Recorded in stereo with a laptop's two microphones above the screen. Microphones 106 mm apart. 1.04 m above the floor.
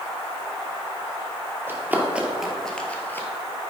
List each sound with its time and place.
1.7 s running footsteps: 20° right (ahead or behind), 1.2 m; by 3.3 s 20° left (ahead or behind), 1.1 m